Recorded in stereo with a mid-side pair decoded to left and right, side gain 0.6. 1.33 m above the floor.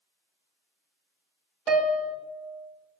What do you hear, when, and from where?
1.7 s a piano: 40° right, 1.1 m